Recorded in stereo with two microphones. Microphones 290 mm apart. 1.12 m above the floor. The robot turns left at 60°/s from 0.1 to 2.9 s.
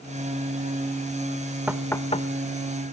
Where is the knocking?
5° right (ahead or behind), 0.9 m; by 2.9 s 65° left (ahead or behind), 0.9 m.